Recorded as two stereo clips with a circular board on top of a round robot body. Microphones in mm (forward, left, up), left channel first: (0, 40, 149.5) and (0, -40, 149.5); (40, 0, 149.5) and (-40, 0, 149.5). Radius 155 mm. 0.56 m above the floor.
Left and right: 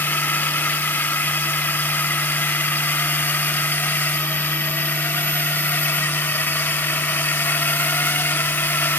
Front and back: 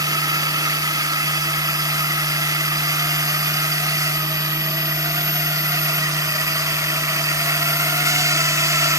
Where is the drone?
150° left; by 9.0 s 145° left.